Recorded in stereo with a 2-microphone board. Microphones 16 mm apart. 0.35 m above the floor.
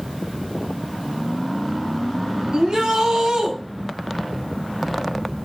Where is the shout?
70° right (ahead or behind), 2.5 m.